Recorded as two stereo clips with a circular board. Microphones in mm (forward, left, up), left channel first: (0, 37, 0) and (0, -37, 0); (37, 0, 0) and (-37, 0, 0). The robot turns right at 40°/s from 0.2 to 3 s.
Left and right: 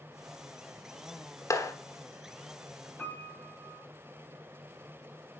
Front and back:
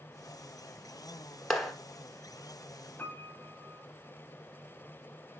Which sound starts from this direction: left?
A clap, at 1.5 s.